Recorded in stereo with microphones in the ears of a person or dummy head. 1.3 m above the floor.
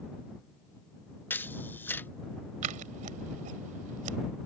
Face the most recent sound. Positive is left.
turn(degrees=-45)  # may be behind; listen again after turning